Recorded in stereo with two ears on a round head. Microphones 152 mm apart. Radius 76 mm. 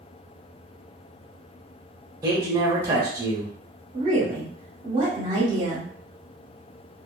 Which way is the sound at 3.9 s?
25° right (ahead or behind).